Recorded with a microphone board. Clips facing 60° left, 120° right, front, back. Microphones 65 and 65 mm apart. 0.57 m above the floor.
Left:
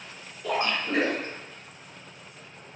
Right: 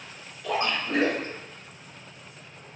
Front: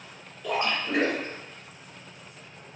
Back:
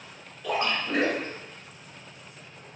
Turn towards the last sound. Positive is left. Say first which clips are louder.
# even, even
turn(degrees=85)